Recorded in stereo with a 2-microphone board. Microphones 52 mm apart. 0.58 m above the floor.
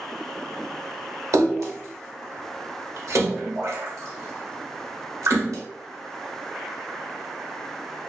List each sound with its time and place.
1.3 s a splash: 80° right, 0.7 m